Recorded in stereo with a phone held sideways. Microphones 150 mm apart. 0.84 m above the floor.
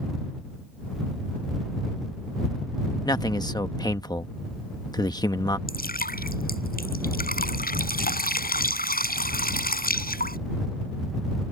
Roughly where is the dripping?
Left.